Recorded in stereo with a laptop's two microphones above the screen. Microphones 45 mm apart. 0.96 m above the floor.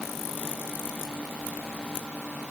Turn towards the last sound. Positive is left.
No sound to turn to.